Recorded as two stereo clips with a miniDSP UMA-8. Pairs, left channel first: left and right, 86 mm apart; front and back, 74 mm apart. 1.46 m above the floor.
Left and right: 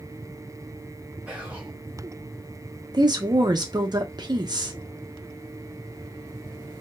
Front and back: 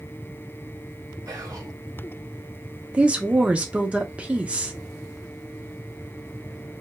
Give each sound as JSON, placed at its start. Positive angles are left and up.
{"t": 1.3, "sound": "whispering", "azimuth_deg": -165, "distance_m": 0.5}
{"t": 2.9, "sound": "a woman speaking", "azimuth_deg": -110, "distance_m": 0.7}